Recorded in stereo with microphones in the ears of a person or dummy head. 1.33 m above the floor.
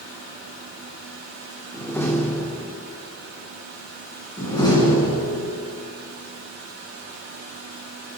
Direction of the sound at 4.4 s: 20° left (ahead or behind).